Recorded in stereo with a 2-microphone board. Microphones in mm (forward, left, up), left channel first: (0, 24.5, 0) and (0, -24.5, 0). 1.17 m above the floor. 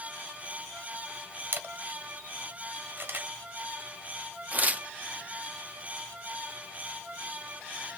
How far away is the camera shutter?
About 1.5 m.